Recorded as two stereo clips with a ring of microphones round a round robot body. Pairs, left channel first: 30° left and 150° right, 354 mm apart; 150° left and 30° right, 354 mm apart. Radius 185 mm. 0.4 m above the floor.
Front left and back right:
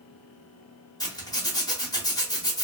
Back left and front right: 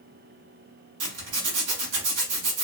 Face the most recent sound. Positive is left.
turn(degrees=-45)